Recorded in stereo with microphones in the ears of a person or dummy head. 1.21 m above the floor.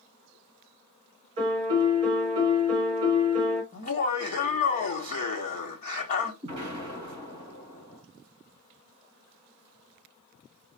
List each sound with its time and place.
1.4 s a piano: 35° right (ahead or behind), 3 m
3.7 s laughter: 35° left (ahead or behind), 1.5 m
6.4 s an explosion: 35° right (ahead or behind), 3 m